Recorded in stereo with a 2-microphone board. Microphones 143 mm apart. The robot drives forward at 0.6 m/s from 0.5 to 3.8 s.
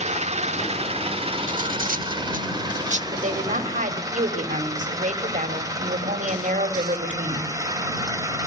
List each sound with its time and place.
0.0 s an engine running: 50° right (ahead or behind), 1.7 m; by 8.5 s 25° right (ahead or behind), 3.5 m
1.5 s cutlery clinking: 65° right (ahead or behind), 1.0 m; by 3.0 s 55° right (ahead or behind), 1.1 m
3.1 s a woman speaking: 65° right (ahead or behind), 3 m; by 7.5 s 60° right (ahead or behind), 3.5 m